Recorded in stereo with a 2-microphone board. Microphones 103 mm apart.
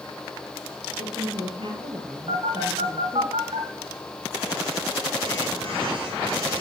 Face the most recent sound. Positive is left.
turn(degrees=-65)  # may be behind; listen again after turning